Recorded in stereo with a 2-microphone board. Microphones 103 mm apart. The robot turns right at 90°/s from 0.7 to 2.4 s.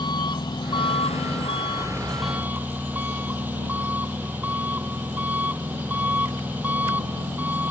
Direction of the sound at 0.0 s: 45° left.